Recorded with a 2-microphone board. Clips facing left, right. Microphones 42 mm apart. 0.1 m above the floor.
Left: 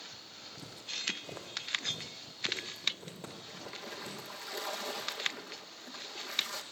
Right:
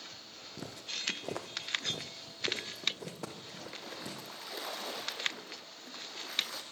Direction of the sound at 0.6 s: 60° right (ahead or behind).